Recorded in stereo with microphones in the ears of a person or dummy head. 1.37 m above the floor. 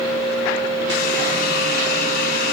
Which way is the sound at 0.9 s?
65° left (ahead or behind).